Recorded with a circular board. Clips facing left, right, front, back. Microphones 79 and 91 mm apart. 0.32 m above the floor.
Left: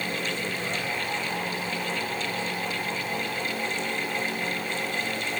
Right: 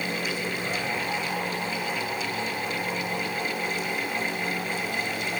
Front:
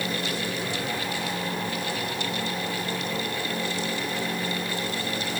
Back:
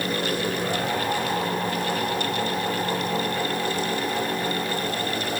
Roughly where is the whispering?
No whispering in this recording.